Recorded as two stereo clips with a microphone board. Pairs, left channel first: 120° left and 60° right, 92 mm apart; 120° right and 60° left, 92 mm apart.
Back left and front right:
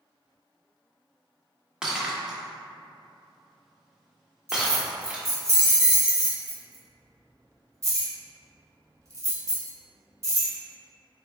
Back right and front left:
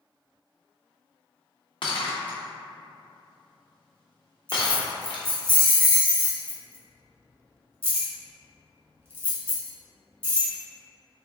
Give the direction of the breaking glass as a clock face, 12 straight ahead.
5 o'clock.